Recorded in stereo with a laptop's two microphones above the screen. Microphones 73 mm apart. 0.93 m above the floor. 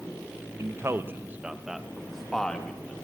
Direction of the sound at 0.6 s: 45° right (ahead or behind).